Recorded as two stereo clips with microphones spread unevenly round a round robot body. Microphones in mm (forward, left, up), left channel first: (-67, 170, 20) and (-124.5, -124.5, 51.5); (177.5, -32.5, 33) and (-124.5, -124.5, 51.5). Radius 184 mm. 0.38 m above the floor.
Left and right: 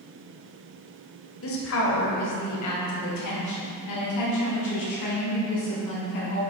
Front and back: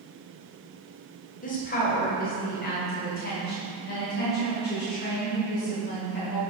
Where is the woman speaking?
70° left, 1.7 m; by 6.4 s 80° left, 4.5 m.